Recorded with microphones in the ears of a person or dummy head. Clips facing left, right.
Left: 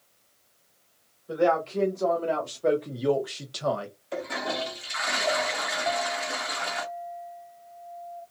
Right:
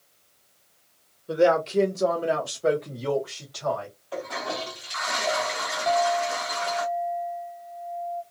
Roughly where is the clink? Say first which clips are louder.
Right 8 dB; centre.